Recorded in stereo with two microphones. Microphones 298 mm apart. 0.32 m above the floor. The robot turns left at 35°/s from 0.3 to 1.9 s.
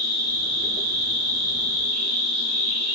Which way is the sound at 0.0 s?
125° right.